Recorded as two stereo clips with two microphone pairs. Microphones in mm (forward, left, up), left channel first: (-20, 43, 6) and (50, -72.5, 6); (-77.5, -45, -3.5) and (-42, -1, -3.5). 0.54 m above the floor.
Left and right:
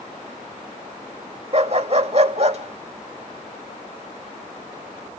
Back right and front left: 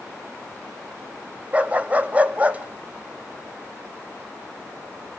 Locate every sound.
1.5 s a dog barking: 20° right, 1.1 m